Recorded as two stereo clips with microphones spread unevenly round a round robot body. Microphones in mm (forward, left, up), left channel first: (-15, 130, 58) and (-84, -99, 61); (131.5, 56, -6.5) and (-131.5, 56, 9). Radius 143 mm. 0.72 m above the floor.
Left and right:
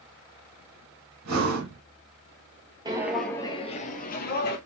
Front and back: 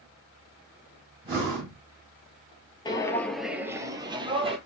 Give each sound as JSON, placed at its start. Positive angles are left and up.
{"t": 1.2, "sound": "breathing", "azimuth_deg": -105, "distance_m": 2.5}
{"t": 2.9, "sound": "footsteps", "azimuth_deg": -60, "distance_m": 0.7}